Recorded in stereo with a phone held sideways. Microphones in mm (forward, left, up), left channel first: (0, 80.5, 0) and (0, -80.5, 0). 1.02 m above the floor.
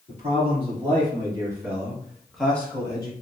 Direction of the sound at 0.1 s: 35° right (ahead or behind).